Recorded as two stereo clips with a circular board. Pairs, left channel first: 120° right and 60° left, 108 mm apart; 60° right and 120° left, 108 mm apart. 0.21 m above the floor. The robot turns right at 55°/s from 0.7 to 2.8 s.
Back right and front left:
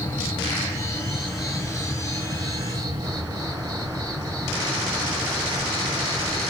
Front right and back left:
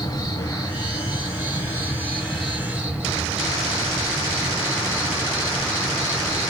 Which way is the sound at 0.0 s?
65° right.